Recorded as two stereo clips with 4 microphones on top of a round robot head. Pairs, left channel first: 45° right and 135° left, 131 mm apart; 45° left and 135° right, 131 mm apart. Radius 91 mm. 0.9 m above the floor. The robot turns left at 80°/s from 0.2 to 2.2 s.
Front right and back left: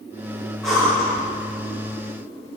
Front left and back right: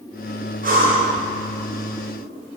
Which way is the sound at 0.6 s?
130° right.